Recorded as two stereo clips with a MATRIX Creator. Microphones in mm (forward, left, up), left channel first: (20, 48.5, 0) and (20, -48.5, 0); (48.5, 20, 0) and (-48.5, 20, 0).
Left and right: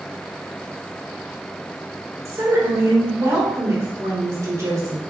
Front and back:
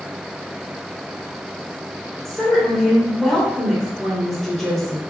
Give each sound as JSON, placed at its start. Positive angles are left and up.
{"t": 2.2, "sound": "a woman speaking", "azimuth_deg": -85, "distance_m": 1.4}